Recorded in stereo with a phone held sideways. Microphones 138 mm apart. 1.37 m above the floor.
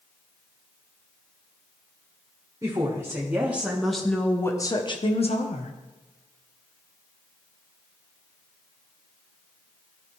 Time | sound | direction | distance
2.6 | a woman speaking | 25° right (ahead or behind) | 1.8 m